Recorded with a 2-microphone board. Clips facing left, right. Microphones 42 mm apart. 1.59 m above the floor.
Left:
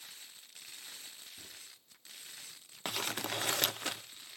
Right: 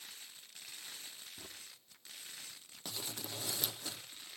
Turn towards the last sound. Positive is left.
turn(degrees=65)  # may be behind; listen again after turning